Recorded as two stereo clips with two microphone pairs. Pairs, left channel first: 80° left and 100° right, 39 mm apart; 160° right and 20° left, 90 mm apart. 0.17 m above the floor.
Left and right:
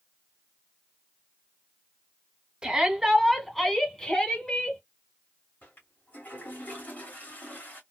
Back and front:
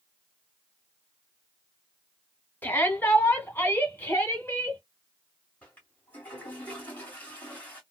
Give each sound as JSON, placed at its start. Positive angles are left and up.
{"t": 2.6, "sound": "a shout", "azimuth_deg": -135, "distance_m": 1.3}
{"t": 5.6, "sound": "a toilet flushing", "azimuth_deg": 125, "distance_m": 1.8}